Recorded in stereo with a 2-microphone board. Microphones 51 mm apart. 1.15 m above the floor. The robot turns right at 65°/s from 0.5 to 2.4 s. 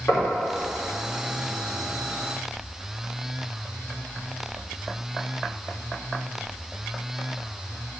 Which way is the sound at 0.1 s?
40° left (ahead or behind).